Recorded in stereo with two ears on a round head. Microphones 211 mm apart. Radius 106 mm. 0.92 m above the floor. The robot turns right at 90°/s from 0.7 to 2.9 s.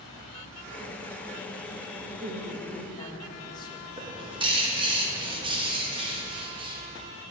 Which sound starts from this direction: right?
A bird, at 4.0 s.